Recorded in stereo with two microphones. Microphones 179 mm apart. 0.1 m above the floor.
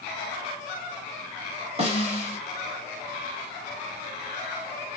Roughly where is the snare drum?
Right.